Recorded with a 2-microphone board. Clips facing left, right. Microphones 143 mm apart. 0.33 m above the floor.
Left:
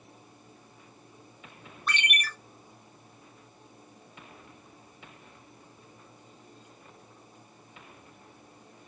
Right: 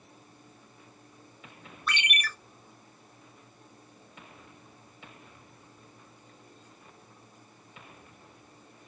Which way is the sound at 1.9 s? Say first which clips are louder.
Left 1 dB; 45° left (ahead or behind).